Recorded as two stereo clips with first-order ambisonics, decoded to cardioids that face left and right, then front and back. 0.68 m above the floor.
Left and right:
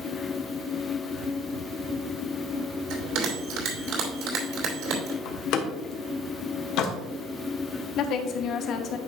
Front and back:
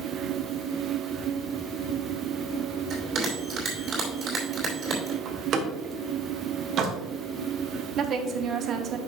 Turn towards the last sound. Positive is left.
turn(degrees=130)